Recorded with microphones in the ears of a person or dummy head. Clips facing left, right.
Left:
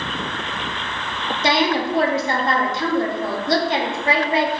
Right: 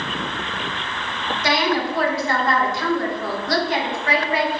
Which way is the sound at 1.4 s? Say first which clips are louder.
Left 2 dB; 25° left (ahead or behind).